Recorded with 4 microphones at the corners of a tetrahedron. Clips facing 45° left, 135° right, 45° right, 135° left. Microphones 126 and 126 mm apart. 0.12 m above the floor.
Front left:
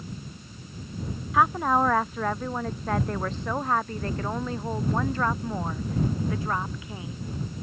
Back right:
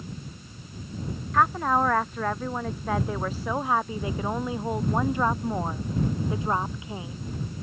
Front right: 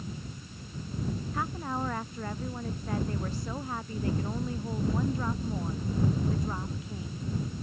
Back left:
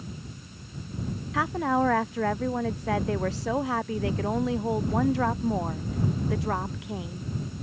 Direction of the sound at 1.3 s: 130° left.